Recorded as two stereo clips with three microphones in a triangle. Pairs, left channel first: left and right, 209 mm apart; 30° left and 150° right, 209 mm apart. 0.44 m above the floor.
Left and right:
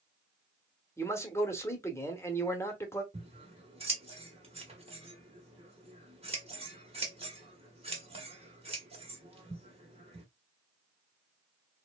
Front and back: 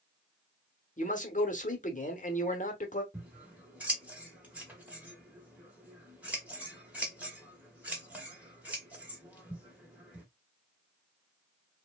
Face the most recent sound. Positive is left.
turn(degrees=-75)